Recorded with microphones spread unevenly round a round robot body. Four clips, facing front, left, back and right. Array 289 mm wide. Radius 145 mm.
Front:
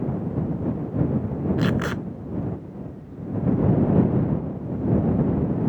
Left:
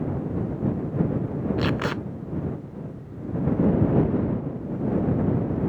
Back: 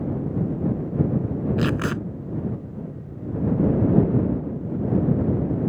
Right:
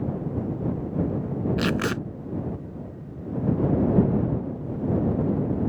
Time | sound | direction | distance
1.6 | tape being pulled | 130° right | ?